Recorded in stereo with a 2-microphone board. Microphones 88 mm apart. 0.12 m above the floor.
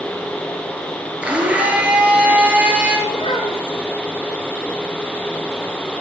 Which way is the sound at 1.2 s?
15° right (ahead or behind).